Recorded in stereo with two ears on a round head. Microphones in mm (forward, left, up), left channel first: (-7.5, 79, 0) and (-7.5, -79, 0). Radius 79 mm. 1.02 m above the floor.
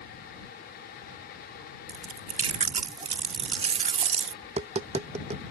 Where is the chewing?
35° right (ahead or behind).